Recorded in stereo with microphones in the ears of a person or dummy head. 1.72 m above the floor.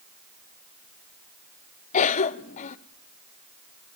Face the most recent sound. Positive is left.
turn(degrees=45)  # may be behind; listen again after turning